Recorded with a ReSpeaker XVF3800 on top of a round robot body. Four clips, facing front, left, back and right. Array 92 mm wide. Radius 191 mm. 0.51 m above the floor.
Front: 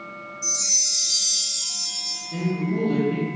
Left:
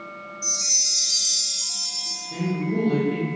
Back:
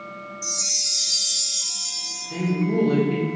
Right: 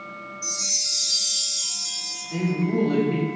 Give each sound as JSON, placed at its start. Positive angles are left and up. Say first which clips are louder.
{"t": 0.4, "sound": "a chime", "louder": "even, back 1 dB", "azimuth_deg": 175, "distance_m": 3.5}
{"t": 2.3, "sound": "a man speaking", "louder": "right 2 dB, back 3 dB", "azimuth_deg": -170, "distance_m": 3.5}